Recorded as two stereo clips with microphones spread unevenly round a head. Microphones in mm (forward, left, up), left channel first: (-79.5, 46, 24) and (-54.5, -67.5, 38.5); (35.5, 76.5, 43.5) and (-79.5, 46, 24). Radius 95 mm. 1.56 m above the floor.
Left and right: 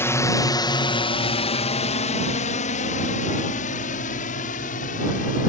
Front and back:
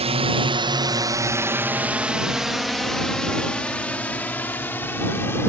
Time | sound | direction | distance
0.0 | a drone | 170° left | ?